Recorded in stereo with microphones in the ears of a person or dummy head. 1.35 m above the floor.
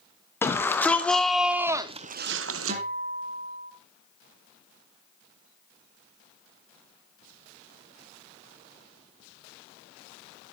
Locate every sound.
0.4 s a shout: 15° left (ahead or behind), 2 m; by 2.8 s 70° right (ahead or behind), 0.9 m
2.7 s a guitar: 40° right (ahead or behind), 3.5 m